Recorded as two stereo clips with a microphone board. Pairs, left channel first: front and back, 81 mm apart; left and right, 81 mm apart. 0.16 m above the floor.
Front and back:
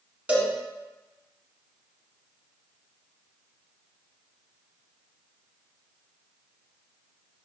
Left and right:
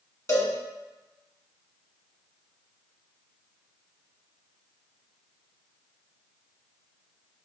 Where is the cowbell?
120° left, 1.3 m.